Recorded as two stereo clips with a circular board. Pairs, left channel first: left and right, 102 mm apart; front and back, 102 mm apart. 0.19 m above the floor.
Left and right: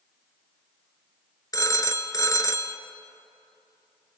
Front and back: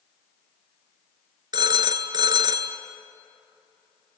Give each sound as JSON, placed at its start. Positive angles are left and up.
{"t": 1.5, "sound": "a phone ringing", "azimuth_deg": 140, "distance_m": 1.6}